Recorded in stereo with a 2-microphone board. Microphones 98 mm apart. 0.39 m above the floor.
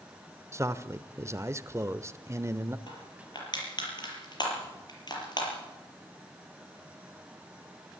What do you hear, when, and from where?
0.5 s a man speaking: 30° right (ahead or behind), 0.9 m
2.9 s crushing: 50° left (ahead or behind), 6.5 m